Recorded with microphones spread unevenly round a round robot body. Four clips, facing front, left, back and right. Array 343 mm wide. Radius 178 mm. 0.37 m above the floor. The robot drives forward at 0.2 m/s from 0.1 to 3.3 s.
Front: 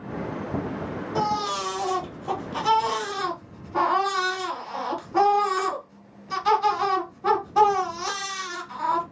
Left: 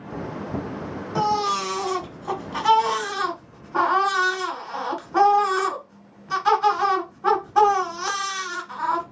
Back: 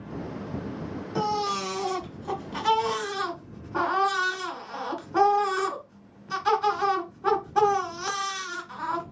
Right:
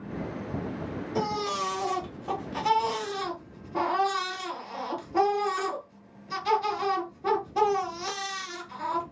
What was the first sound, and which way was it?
A baby crying, 70° left.